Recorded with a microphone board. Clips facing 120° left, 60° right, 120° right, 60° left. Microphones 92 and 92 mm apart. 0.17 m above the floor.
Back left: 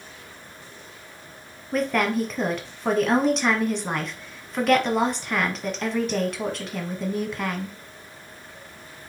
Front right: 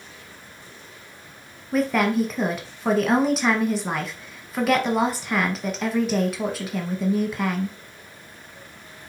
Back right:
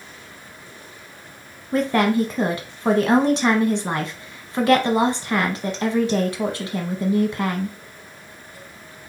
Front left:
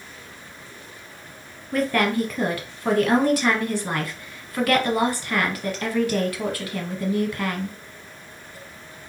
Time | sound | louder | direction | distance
1.7 | a woman speaking | front right 2 dB, back right 3 dB | 140° right | 1.1 m